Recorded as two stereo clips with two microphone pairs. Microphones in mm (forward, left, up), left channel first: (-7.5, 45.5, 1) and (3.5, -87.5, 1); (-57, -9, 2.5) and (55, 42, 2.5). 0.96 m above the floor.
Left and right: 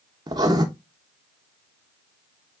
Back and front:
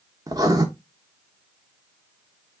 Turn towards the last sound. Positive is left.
turn(degrees=-30)